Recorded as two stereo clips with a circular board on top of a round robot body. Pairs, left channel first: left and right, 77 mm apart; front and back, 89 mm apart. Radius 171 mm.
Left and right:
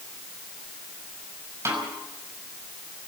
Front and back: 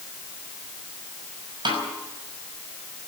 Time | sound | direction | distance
1.6 | a snare drum | 145° right | 5.5 m